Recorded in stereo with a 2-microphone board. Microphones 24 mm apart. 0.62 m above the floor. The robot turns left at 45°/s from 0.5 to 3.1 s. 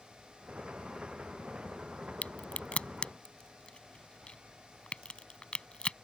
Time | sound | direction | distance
2.2 | a crack | 85° left | ?